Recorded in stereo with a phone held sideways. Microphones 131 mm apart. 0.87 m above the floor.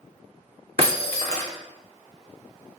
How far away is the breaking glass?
About 2.5 m.